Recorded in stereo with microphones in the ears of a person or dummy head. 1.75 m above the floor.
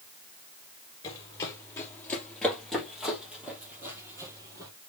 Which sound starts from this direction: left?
Running footsteps, at 1.0 s.